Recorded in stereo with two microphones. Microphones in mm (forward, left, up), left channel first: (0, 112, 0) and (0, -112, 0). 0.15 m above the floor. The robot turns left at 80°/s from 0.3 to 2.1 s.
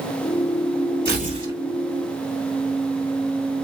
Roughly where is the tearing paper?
Behind right.